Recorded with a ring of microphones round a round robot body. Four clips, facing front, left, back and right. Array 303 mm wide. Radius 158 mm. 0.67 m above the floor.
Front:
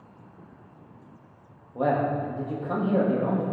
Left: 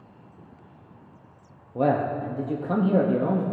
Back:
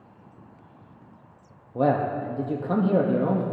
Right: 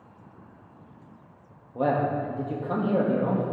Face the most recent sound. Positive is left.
turn(degrees=140)